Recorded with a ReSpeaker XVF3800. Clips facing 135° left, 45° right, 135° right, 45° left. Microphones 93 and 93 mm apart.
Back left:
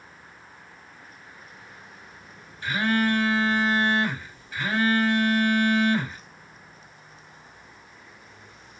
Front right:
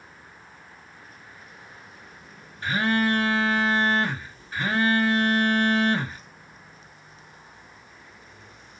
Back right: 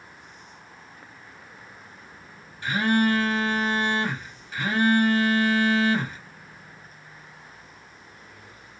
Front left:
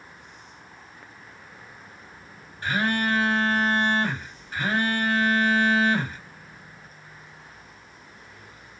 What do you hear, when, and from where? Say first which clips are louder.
2.6 s a phone buzzing: even, back right 3 dB; 5° left, 2.5 m